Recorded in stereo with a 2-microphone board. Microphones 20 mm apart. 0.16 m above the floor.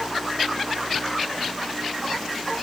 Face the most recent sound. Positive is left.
No sound to turn to.